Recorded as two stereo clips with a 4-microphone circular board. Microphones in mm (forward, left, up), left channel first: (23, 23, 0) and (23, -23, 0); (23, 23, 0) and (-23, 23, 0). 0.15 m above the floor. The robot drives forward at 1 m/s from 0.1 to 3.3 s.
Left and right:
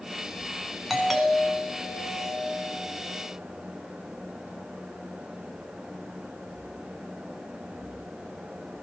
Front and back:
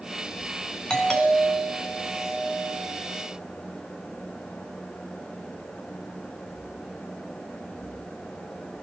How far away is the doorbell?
About 1.9 m.